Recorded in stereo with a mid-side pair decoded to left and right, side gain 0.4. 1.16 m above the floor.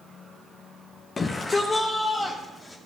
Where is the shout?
40° left, 0.8 m; by 2.8 s 20° left, 1.6 m.